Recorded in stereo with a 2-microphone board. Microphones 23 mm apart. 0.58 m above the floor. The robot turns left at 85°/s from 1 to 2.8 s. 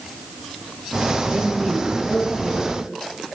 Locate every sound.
1.3 s a woman speaking: 100° right, 7.5 m; by 2.8 s 130° left, 7.5 m